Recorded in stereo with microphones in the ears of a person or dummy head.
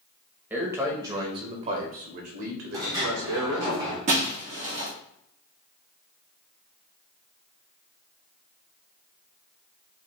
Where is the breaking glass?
35° right (ahead or behind), 1.1 m.